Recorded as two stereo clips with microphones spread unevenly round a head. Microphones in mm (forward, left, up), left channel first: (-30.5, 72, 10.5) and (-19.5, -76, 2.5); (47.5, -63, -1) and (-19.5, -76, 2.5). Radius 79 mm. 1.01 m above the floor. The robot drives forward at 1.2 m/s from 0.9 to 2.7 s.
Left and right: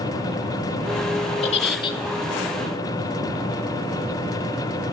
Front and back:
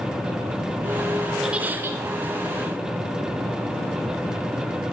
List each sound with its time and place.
1.4 s a giggle: 110° left, 1.0 m; by 2.0 s 145° left, 1.4 m